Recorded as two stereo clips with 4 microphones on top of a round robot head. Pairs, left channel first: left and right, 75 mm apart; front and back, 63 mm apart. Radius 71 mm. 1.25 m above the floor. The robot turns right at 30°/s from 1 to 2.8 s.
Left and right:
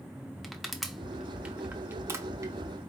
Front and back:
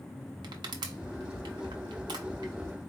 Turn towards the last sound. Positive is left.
turn(degrees=-125)